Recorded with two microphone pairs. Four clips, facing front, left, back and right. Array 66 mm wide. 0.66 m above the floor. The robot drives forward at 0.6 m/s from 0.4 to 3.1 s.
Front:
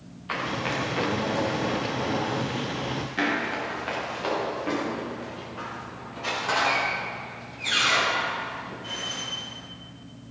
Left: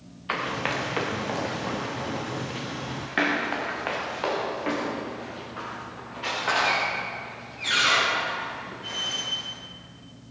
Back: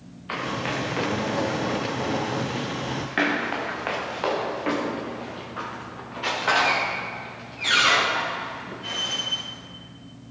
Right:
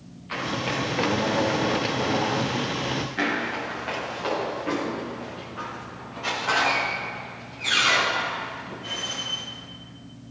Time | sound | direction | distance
0.3 | running footsteps | 75° left | 4.5 m